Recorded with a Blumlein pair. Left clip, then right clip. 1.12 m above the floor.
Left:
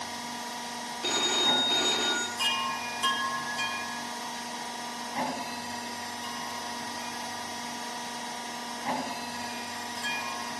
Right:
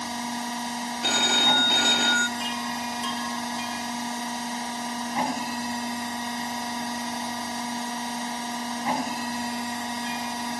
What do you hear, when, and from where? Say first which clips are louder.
0.0 s a machine running: right 5 dB; 10° right, 1.0 m
1.0 s a phone ringing: right 5 dB; 15° right, 0.9 m
2.4 s a chime: left 1 dB; 35° left, 3 m